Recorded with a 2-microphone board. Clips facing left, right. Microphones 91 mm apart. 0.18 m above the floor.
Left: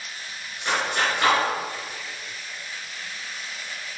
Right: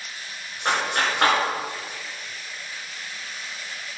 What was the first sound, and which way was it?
A clap, 60° right (ahead or behind).